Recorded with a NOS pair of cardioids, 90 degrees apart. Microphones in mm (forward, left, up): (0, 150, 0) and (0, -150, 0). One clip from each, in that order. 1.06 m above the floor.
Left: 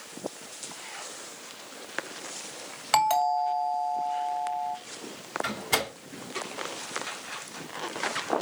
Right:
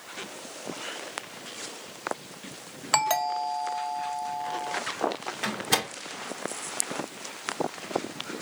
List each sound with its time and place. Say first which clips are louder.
2.9 s a doorbell: left 2 dB; 5° right, 1.9 m
5.4 s a door slam: right 2 dB; 70° right, 2 m